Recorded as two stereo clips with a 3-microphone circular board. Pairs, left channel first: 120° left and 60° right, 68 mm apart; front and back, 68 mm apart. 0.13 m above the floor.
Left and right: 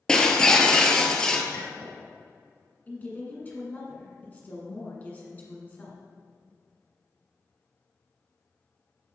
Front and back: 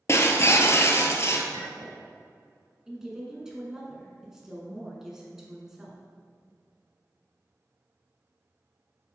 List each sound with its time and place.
0.1 s breaking glass: 40° left, 0.8 m
1.5 s a clink: 170° right, 2 m
2.9 s a woman speaking: 105° left, 1.5 m